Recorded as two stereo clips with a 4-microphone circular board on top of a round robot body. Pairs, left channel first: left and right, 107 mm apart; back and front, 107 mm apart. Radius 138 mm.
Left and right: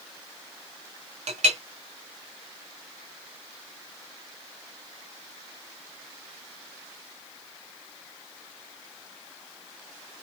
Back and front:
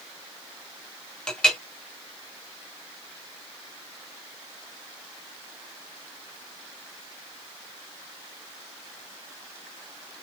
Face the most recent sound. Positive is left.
turn(degrees=-95)